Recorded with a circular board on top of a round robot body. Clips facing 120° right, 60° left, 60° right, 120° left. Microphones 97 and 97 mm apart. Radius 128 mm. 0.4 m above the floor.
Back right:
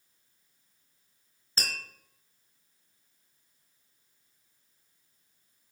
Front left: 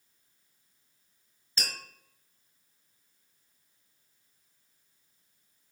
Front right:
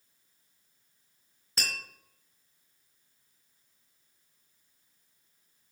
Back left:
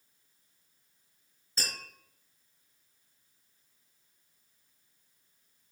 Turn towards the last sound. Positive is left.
turn(degrees=-70)